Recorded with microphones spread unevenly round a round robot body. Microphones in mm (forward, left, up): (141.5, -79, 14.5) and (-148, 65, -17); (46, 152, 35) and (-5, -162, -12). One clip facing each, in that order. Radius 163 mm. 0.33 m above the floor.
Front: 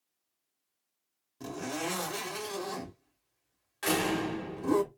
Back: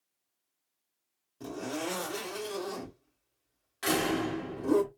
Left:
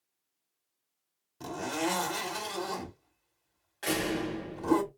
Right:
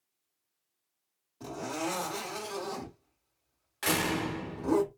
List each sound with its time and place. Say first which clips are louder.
1.4 s a zipper: back 1 dB, left 2 dB; 50° left, 1.6 m
3.8 s a door slam: back 1 dB, even; 120° right, 0.9 m